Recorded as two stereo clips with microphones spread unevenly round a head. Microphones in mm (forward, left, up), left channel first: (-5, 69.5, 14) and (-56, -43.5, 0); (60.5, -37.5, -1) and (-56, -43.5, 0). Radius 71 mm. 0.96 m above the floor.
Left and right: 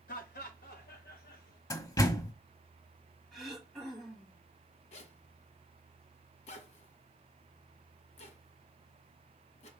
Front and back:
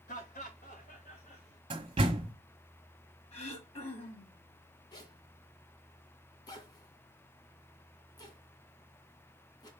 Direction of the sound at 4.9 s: 60° left.